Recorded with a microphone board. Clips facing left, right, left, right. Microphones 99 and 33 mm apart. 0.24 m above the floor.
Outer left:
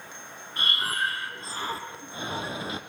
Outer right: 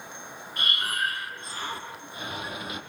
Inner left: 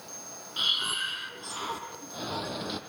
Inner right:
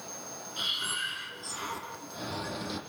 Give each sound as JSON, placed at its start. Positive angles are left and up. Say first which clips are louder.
{"t": 0.6, "sound": "breathing", "louder": "outer left 1 dB, inner left 4 dB", "side_deg": 30, "distance_m": 3.5}